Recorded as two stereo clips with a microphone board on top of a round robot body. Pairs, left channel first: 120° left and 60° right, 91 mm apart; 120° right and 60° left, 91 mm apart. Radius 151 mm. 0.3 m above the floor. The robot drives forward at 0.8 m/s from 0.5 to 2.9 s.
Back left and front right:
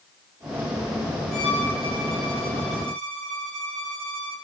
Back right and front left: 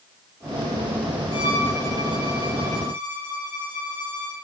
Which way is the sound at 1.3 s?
155° right.